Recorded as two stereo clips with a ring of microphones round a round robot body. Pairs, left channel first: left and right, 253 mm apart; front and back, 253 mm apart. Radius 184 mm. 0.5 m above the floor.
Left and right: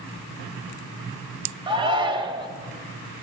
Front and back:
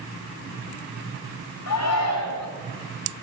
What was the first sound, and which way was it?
A shout, 20° right.